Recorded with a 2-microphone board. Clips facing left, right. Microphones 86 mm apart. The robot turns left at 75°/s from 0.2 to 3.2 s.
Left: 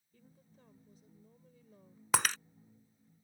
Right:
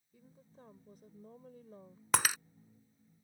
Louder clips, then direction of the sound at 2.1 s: Even; centre (ahead or behind).